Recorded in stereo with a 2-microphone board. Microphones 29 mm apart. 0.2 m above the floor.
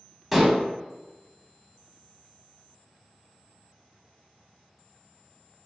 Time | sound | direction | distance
0.3 | dishes clattering | 10° right (ahead or behind) | 0.8 m